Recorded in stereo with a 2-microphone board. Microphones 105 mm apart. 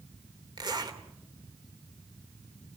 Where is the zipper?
45° right (ahead or behind), 2.5 m.